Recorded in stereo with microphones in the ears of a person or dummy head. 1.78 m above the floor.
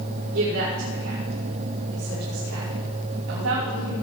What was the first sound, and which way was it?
A woman speaking, 75° right (ahead or behind).